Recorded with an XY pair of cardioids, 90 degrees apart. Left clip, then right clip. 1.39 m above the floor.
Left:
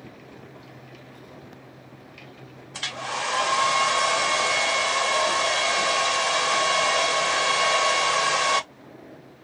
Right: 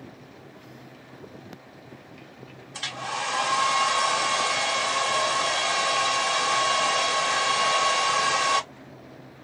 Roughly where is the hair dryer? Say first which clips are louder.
Left 1 dB; ahead.